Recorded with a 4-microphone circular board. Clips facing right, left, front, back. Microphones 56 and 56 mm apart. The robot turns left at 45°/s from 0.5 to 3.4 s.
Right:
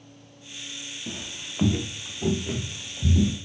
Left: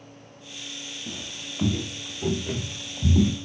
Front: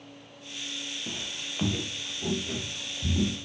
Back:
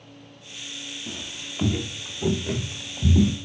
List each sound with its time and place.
1.1 s footsteps: 45° right, 1.1 m; by 3.4 s 130° left, 1.3 m